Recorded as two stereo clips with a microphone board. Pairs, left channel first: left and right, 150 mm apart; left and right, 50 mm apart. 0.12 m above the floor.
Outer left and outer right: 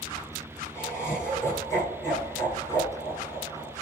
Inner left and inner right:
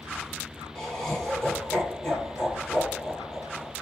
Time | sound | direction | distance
0.8 | laughter | 20° left (ahead or behind) | 5.5 m